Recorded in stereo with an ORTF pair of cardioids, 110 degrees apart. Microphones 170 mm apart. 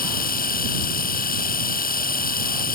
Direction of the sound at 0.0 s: 60° left.